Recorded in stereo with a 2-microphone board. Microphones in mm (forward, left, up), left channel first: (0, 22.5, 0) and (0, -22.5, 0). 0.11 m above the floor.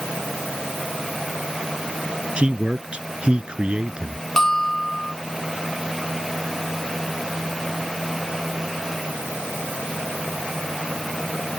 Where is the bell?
10° left (ahead or behind).